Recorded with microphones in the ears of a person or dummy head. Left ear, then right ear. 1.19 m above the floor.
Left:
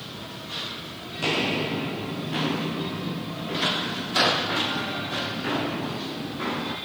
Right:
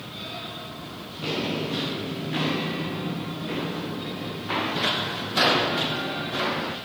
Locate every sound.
1.2 s footsteps: 25° left (ahead or behind), 1.3 m; by 6.8 s 30° right (ahead or behind), 3.5 m